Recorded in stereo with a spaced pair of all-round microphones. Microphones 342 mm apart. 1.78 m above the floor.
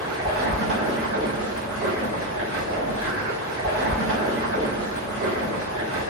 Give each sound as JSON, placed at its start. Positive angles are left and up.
{"t": 0.0, "sound": "running water", "side_deg": -40, "distance_m": 1.0}